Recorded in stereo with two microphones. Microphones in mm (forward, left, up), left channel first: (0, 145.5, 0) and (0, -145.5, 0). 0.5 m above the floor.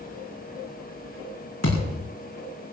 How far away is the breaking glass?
No breaking glass in this recording.